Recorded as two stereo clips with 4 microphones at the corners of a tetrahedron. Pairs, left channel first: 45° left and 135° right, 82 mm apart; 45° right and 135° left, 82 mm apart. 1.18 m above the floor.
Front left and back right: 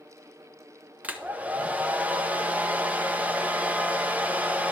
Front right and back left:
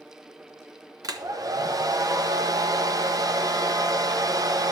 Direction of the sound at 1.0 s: 160° left.